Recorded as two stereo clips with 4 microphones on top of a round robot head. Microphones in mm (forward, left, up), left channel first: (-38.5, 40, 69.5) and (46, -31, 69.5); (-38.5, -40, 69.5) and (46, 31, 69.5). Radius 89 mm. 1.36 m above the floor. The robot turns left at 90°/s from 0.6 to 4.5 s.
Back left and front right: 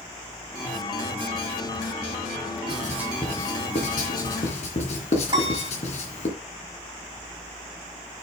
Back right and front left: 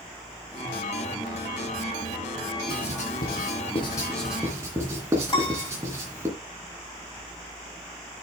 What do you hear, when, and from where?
2.7 s writing: 85° right, 2.5 m; by 6.3 s 110° left, 2.5 m
5.3 s a piano: 90° right, 3 m